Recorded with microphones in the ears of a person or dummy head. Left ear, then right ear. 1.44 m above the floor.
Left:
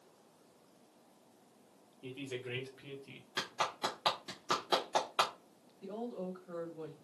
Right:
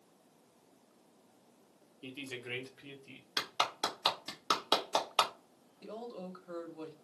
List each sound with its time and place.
2.0 s a woman speaking: 30° right (ahead or behind), 0.9 m; by 3.3 s 5° left (ahead or behind), 1.3 m
3.4 s a clap: 30° right (ahead or behind), 1.0 m
5.8 s a woman speaking: 35° right (ahead or behind), 1.1 m